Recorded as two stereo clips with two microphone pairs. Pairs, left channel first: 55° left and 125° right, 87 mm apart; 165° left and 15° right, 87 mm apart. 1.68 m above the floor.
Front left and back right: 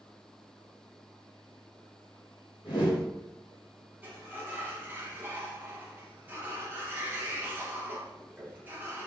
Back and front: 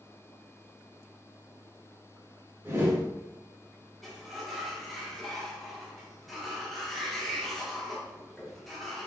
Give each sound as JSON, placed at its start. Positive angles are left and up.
{"t": 2.6, "sound": "a whoosh", "azimuth_deg": 40, "distance_m": 1.3}
{"t": 4.0, "sound": "a sliding door", "azimuth_deg": -105, "distance_m": 0.9}